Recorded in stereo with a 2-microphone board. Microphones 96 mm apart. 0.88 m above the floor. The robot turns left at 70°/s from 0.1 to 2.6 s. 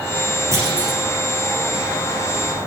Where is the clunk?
145° right, 10 m; by 1.0 s straight behind, 10 m.